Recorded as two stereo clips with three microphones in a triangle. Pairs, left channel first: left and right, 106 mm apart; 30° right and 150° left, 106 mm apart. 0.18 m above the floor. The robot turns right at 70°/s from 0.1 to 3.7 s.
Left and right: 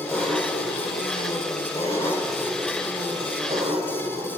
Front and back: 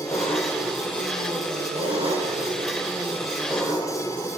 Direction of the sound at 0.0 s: 25° left.